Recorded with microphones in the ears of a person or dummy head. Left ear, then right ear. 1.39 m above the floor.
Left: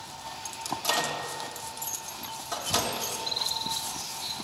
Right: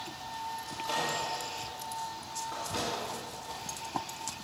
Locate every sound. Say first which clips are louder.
0.7 s a microwave: left 6 dB; 65° left (ahead or behind), 1.0 m